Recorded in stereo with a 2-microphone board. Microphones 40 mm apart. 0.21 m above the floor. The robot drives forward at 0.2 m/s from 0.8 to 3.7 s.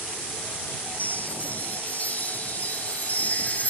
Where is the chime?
40° left (ahead or behind).